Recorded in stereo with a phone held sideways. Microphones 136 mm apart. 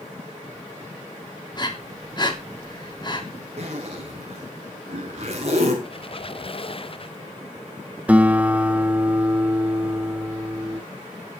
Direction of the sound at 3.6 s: 50° right (ahead or behind).